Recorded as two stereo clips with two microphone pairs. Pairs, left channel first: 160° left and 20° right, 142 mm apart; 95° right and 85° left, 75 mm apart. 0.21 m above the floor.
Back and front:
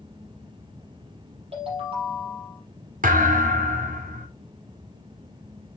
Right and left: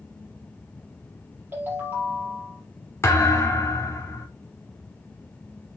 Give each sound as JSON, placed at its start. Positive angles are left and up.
{"t": 1.5, "sound": "a ringtone", "azimuth_deg": 25, "distance_m": 4.5}
{"t": 3.0, "sound": "a thud", "azimuth_deg": -40, "distance_m": 2.5}